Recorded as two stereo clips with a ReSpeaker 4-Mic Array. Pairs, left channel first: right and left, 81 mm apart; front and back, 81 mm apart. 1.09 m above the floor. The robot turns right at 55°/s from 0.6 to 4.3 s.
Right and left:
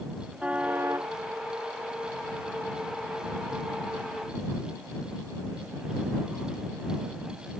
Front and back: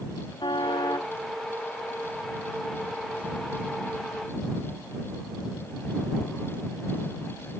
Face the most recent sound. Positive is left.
turn(degrees=-140)